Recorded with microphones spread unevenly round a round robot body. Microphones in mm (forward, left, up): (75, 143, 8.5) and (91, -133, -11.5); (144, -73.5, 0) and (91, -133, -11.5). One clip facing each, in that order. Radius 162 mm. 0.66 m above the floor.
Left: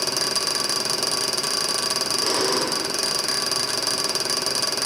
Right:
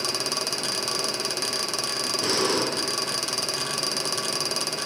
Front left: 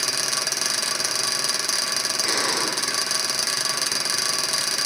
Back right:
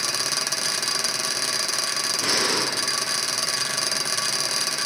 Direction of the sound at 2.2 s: 150° right.